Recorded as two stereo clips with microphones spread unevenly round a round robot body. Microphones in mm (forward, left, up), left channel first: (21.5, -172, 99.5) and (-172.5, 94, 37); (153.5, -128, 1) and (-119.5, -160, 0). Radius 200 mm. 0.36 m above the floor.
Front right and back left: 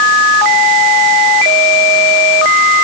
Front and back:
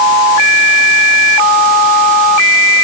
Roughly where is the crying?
I don't hear crying.